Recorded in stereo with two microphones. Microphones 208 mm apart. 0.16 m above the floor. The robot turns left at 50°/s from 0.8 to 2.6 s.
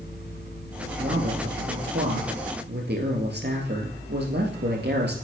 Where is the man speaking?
35° right, 2.5 m; by 5.2 s 115° right, 2.5 m.